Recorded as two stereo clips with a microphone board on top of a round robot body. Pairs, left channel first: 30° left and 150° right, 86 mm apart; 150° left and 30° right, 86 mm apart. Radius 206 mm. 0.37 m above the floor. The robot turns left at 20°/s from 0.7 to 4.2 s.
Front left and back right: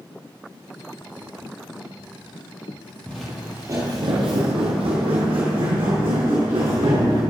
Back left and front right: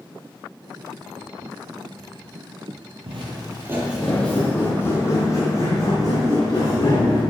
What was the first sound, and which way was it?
Footsteps, 45° right.